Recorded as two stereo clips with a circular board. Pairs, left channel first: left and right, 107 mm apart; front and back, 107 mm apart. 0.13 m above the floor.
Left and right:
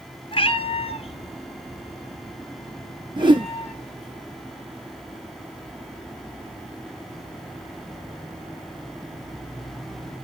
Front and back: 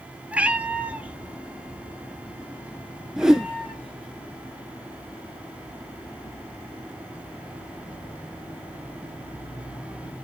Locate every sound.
0.3 s a cat meowing: 105° left, 0.7 m; by 4.2 s 100° left, 3.5 m
3.2 s a whoosh: 95° right, 0.6 m